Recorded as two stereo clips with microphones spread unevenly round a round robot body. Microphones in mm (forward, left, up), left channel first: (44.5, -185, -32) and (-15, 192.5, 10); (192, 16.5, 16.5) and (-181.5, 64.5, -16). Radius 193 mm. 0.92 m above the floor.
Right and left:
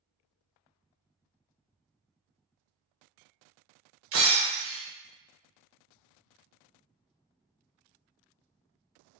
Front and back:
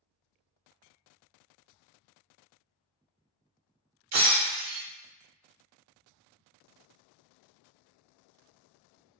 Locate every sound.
4.1 s breaking glass: 135° left, 0.7 m